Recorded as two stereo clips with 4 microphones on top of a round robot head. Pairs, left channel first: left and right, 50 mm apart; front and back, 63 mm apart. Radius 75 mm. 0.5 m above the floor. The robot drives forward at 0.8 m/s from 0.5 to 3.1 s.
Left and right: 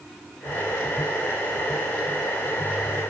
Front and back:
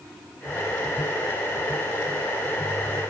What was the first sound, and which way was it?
Only background noise.